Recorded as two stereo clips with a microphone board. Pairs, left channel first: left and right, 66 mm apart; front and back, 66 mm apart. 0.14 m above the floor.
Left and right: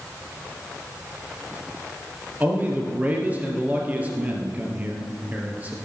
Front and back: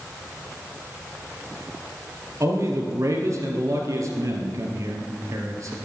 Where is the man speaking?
155° right, 2.5 m.